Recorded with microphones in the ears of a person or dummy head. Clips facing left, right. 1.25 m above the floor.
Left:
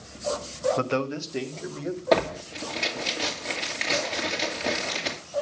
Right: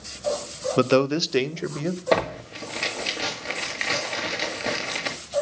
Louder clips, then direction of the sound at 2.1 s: Left 2 dB; 10° right (ahead or behind).